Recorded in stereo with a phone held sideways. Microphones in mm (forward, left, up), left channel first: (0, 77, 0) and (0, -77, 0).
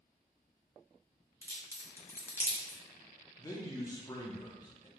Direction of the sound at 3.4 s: 20° left (ahead or behind).